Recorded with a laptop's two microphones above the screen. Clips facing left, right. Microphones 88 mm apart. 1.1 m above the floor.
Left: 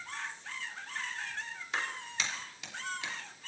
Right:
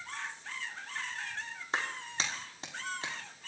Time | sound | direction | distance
1.7 | a clap | 35° right (ahead or behind) | 3 m